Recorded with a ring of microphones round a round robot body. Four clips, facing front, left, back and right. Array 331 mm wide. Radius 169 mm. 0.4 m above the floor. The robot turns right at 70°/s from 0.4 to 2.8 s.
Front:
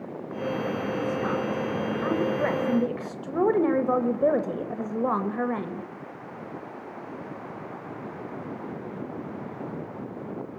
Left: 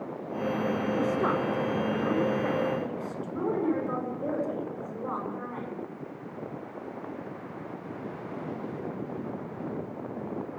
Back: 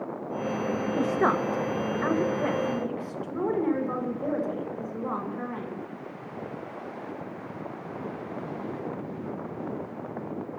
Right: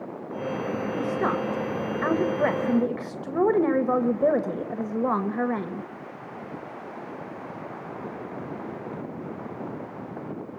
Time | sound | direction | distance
1.0 | a woman speaking | straight behind | 1.5 m